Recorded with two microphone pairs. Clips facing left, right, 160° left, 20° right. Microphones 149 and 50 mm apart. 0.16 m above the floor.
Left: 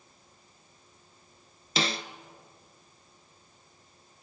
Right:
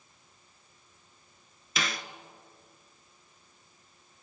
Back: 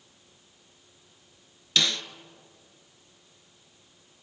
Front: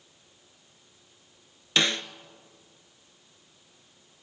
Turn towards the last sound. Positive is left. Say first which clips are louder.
# left 4 dB, front 2 dB
turn(degrees=35)